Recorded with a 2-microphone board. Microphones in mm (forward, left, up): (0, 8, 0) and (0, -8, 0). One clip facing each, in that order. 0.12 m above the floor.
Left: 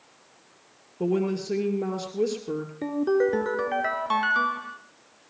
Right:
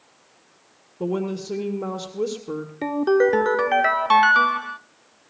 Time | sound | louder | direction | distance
1.0 | a woman speaking | even | 30° left (ahead or behind) | 2.0 m
2.8 | a ringtone | right 5 dB | 35° right (ahead or behind) | 0.7 m